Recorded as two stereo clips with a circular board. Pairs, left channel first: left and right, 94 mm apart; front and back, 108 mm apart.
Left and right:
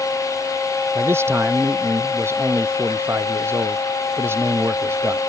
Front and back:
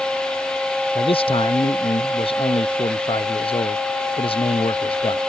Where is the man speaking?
30° right.